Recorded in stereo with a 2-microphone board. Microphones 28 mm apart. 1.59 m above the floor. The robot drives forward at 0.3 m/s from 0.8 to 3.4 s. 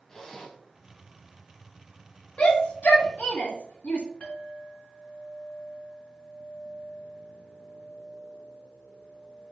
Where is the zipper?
10° left (ahead or behind), 1.4 m.